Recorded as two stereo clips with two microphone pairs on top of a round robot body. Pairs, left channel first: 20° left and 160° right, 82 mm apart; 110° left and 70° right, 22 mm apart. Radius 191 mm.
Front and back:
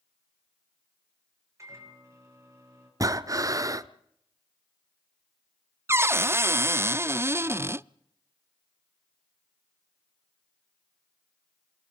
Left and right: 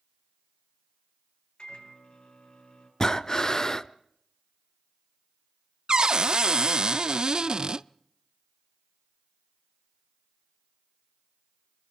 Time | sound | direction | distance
1.6 | a microwave | 150° left | 8 m
3.0 | breathing | 165° left | 1.0 m
5.9 | a cupboard door | 120° right | 0.6 m